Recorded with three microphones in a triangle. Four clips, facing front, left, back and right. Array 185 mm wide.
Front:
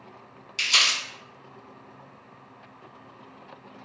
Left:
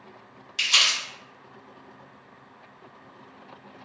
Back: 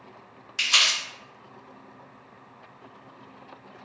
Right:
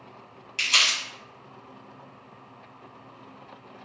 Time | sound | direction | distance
0.6 | crumpling | 175° left | 1.5 m